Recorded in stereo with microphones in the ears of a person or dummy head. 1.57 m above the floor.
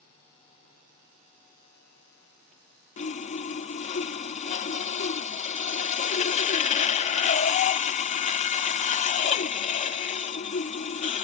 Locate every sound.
3.0 s sawing: 35° left (ahead or behind), 0.6 m